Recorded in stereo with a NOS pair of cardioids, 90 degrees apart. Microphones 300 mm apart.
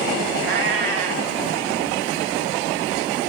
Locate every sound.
0.4 s a cat meowing: 50° right, 2 m